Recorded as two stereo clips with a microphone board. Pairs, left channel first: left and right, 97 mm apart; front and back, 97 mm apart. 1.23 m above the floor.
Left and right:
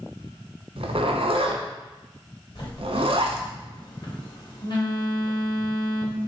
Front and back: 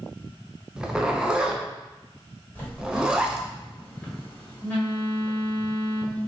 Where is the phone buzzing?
65° left, 1.5 m.